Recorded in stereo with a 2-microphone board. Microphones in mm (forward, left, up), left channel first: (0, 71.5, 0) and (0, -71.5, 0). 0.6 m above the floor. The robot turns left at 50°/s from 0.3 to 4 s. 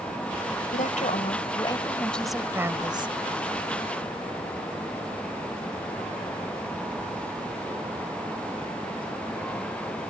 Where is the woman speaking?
80° left; by 3.1 s 45° right.